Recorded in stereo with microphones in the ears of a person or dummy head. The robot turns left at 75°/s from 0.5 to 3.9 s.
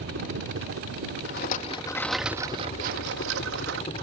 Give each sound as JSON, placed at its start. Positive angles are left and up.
{"t": 0.0, "sound": "a helicopter", "side_deg": -65}
{"t": 1.2, "sound": "a rattle", "azimuth_deg": 70}